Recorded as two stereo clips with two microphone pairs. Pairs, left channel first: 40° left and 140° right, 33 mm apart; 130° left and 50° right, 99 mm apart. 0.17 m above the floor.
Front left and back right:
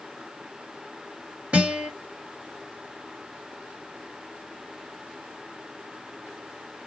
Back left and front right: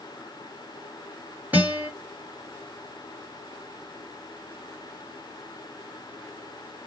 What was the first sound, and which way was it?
A guitar, 115° right.